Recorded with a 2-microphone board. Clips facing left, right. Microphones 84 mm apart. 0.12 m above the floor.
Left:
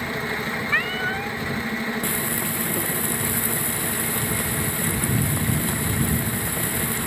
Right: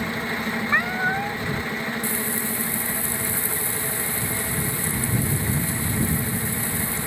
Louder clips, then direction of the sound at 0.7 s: Right 3 dB; 25° right (ahead or behind).